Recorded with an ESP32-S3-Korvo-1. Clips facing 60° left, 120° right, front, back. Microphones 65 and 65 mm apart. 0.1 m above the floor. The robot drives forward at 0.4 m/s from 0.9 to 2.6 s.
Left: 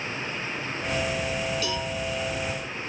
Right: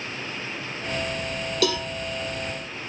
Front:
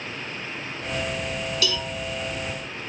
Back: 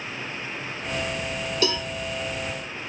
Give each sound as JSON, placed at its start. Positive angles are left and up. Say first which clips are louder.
{"t": 1.6, "sound": "a cowbell", "louder": "right 5 dB, back 4 dB", "azimuth_deg": -125, "distance_m": 1.4}